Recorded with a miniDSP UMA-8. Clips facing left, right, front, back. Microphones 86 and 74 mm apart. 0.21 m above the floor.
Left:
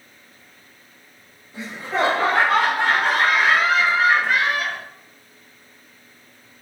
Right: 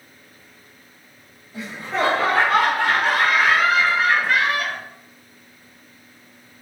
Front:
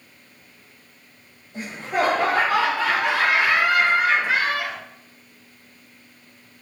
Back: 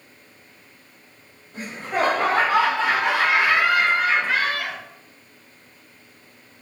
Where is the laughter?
145° left, 1.8 m; by 4.8 s 40° left, 1.3 m.